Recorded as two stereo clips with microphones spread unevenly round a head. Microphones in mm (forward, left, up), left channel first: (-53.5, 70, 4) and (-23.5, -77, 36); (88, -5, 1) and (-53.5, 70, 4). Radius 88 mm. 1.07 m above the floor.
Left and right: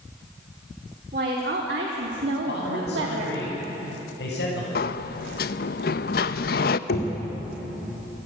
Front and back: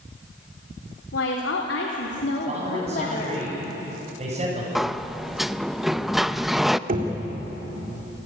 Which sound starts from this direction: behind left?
Knocking, at 6.9 s.